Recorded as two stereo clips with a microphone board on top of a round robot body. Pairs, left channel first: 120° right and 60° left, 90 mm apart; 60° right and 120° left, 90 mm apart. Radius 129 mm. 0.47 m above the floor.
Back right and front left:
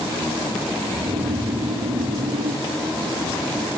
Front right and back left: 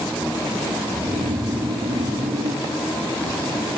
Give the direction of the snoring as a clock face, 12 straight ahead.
9 o'clock.